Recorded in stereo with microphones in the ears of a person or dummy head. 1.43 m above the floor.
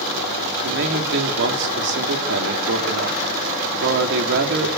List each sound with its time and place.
0.6 s a man speaking: 65° right (ahead or behind), 4 m